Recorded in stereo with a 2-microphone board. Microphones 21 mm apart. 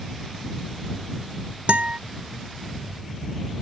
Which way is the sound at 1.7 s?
80° right.